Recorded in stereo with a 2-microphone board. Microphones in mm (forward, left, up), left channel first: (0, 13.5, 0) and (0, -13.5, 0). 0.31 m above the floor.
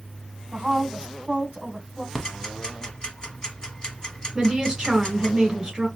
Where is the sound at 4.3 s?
20° right (ahead or behind), 1.3 m.